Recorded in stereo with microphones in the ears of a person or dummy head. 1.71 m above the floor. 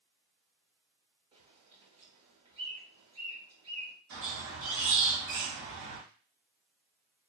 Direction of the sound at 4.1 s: 50° right (ahead or behind).